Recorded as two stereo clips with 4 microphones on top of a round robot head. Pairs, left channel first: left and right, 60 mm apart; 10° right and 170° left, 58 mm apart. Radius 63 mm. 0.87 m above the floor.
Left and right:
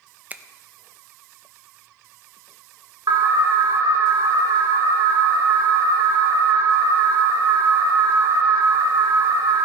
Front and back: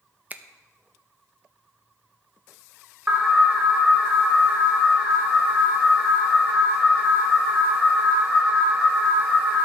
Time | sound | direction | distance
0.3 | a finger snap | 140° right | 0.7 m
3.1 | an alarm | 110° right | 1.3 m